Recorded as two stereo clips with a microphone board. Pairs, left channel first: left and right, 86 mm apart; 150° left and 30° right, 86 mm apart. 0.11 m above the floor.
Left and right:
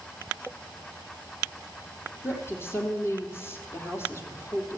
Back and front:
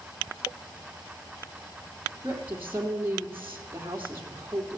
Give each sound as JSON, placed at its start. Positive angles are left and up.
{"t": 2.2, "sound": "a woman speaking", "azimuth_deg": 30, "distance_m": 3.0}